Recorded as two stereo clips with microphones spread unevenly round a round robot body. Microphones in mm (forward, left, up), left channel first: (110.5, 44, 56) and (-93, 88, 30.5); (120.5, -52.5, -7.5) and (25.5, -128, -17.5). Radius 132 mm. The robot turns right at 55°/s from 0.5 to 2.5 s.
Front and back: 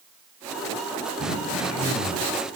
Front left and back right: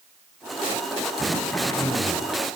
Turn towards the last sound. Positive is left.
turn(degrees=20)